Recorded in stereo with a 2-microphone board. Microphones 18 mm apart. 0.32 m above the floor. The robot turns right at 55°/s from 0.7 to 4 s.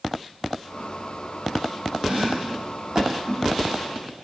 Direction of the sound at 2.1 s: 85° right.